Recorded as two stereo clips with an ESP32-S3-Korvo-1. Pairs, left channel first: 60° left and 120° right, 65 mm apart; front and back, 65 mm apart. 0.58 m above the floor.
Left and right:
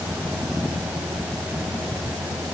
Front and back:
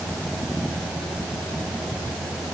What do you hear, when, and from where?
Only background noise.